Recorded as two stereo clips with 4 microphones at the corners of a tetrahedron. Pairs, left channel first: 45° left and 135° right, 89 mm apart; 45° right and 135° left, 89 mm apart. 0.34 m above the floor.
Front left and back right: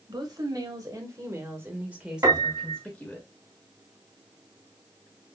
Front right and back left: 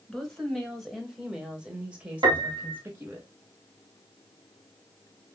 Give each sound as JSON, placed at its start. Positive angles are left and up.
{"t": 0.1, "sound": "a woman speaking", "azimuth_deg": -130, "distance_m": 1.7}
{"t": 2.2, "sound": "a piano", "azimuth_deg": 170, "distance_m": 1.4}